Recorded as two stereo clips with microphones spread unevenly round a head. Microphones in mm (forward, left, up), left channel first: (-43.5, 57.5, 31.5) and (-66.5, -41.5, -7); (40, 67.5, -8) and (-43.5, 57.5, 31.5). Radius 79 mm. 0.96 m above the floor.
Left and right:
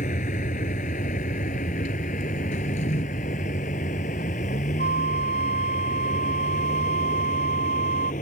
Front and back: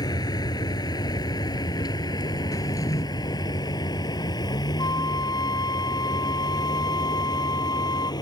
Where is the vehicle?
50° left; by 8.2 s 45° left.